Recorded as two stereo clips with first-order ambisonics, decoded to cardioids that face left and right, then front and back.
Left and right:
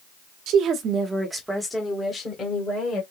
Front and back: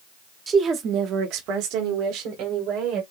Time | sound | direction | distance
0.5 | a woman speaking | 115° right | 1.0 m